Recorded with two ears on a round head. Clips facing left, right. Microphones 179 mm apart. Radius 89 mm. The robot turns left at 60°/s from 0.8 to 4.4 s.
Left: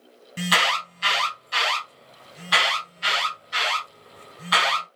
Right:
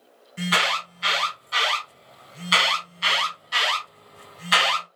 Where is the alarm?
70° left (ahead or behind), 2.0 m; by 4.9 s 35° right (ahead or behind), 2.0 m.